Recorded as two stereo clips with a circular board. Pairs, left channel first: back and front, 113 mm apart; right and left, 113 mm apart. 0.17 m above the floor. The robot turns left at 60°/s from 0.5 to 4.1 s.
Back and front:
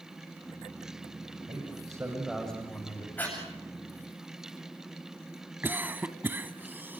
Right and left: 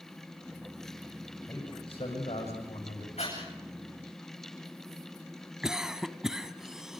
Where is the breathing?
105° right, 9 m; by 3.4 s 115° right, 9 m.